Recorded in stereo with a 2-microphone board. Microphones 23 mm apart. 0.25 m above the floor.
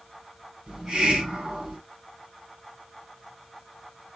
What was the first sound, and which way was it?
A hiss, 45° right (ahead or behind).